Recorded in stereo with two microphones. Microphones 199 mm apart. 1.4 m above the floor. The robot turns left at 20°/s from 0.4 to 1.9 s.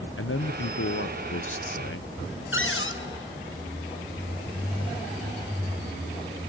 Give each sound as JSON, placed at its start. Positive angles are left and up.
{"t": 0.2, "sound": "a man speaking", "azimuth_deg": 100, "distance_m": 0.8}
{"t": 2.5, "sound": "a cupboard door", "side_deg": 70, "distance_m": 0.9}